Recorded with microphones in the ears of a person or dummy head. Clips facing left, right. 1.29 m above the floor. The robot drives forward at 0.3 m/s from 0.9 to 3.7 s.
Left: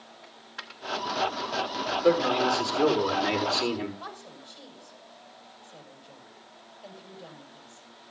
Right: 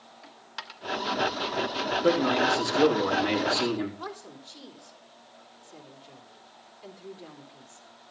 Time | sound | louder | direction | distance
0.2 | a dropped coin | right 1 dB | 60° right (ahead or behind) | 1.2 m
2.0 | a man speaking | left 1 dB | 45° right (ahead or behind) | 4 m
4.0 | a woman speaking | right 3 dB | 60° right (ahead or behind) | 3 m